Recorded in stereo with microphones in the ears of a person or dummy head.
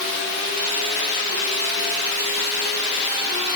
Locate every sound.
Only background noise.